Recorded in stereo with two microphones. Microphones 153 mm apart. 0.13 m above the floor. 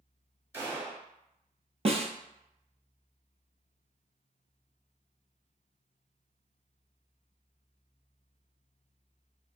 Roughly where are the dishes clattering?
No dishes clattering in this recording.